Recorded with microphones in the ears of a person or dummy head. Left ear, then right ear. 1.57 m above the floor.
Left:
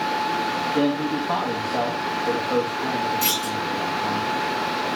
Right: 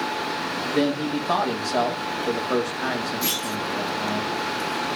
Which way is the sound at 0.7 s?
60° right (ahead or behind).